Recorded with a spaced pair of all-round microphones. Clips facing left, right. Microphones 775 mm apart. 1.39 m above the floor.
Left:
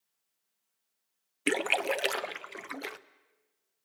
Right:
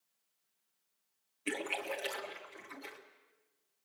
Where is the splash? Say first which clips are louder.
Left 9 dB; 90° left, 0.8 m.